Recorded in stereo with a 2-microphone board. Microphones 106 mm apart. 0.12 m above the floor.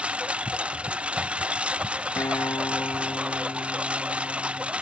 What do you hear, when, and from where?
0.0 s a lawn mower: 10° right (ahead or behind)
2.2 s a guitar: 30° left (ahead or behind)